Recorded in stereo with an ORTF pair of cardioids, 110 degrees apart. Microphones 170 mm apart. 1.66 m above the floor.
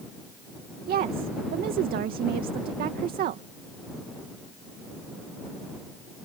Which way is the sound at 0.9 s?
65° right.